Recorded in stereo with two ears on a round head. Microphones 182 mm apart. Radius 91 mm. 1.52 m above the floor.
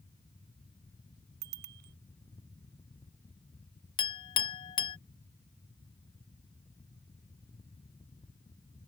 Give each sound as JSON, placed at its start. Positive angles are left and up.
{"t": 1.4, "sound": "a bicycle bell", "side_deg": -55}
{"t": 4.0, "sound": "a clink", "side_deg": 25}